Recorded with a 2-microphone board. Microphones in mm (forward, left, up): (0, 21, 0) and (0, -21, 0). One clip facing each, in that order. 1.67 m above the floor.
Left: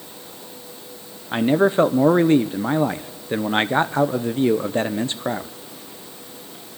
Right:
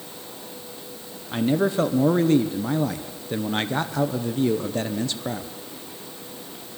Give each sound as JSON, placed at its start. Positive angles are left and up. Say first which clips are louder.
{"t": 1.3, "sound": "a man speaking", "louder": "left 5 dB", "side_deg": 30, "distance_m": 0.5}